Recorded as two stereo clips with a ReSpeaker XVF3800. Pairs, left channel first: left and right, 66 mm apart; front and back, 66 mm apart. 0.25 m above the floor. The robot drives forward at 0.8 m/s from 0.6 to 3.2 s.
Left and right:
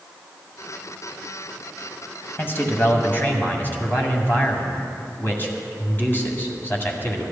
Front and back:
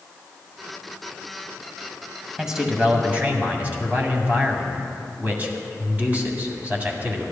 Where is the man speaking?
100° left, 1.7 m; by 7.2 s 130° left, 1.9 m.